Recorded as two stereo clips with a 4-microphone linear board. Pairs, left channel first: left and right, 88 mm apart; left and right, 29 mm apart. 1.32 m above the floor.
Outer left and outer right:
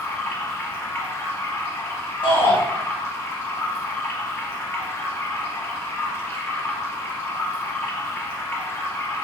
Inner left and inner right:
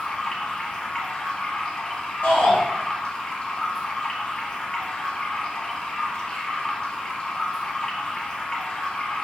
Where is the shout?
80° left, 1.9 m.